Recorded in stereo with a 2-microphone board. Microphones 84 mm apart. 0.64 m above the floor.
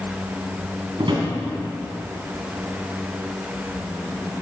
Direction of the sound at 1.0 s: 65° right (ahead or behind).